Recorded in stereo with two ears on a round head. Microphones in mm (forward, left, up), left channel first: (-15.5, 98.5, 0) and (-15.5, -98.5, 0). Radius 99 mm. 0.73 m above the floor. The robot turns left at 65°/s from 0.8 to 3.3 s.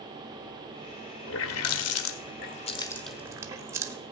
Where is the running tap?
60° left (ahead or behind), 1.2 m; by 4.0 s 10° right (ahead or behind), 1.2 m.